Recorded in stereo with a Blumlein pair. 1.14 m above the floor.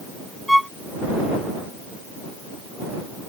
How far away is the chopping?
No chopping in this recording.